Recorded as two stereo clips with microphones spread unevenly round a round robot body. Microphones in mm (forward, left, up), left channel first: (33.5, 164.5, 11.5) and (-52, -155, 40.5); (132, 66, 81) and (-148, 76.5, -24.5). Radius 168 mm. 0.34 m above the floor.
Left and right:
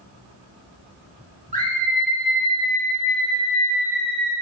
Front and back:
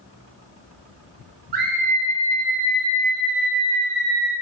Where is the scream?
170° right, 1.6 m; by 4.3 s 40° right, 1.3 m.